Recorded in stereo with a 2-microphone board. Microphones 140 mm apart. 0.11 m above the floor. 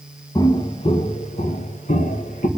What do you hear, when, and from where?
0.3 s footsteps: 30° left (ahead or behind), 1.4 m; by 2.5 s 80° left, 2.5 m